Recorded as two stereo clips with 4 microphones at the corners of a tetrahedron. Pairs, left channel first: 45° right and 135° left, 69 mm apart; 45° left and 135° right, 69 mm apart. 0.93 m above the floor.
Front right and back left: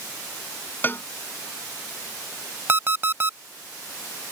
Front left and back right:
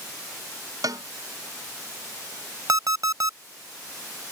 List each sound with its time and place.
0.8 s a cowbell: 105° right
2.7 s an alarm clock: 165° right